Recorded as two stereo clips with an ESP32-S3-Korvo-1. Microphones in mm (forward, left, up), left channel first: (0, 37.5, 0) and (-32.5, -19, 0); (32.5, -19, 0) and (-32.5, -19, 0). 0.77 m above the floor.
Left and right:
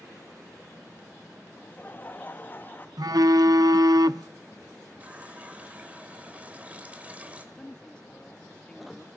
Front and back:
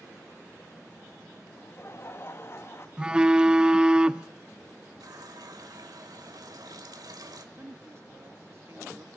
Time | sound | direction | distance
1.5 | laughter | 15° left | 1.1 m
3.0 | a phone buzzing | 105° right | 0.5 m
5.0 | a running tap | 170° left | 2 m
7.5 | a woman speaking | 135° left | 1.2 m